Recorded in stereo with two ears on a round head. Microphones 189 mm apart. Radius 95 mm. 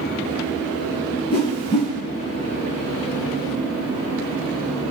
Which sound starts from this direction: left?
A whoosh, at 1.3 s.